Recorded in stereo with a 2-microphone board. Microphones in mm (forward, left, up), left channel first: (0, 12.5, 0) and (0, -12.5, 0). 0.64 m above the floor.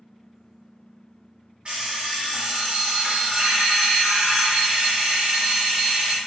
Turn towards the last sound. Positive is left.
turn(degrees=-45)  # may be behind; listen again after turning